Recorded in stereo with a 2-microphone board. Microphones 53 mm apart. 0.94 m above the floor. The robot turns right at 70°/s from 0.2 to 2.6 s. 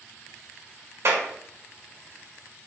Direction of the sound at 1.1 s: 50° right (ahead or behind).